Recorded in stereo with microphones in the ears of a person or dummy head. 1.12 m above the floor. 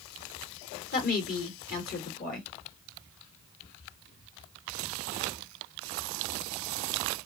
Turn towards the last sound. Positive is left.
turn(degrees=50)  # may be behind; listen again after turning